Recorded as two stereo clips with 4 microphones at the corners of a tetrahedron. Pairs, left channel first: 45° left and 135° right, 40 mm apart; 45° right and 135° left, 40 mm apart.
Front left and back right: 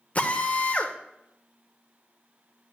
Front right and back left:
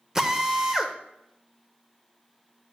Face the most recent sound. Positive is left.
turn(degrees=65)